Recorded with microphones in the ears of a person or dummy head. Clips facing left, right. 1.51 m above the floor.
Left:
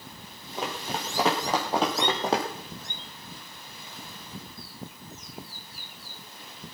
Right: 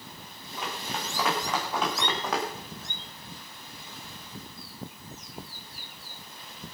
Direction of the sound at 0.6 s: 25° left (ahead or behind).